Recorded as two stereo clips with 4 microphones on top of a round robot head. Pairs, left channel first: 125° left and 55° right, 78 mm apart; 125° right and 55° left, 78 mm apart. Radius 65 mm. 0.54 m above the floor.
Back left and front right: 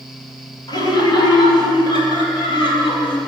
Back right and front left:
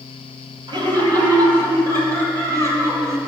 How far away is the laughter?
About 3.5 m.